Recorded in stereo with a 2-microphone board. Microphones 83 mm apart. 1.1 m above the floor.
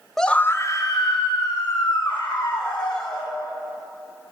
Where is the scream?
5° left (ahead or behind), 0.7 m; by 3.3 s 80° left, 3 m.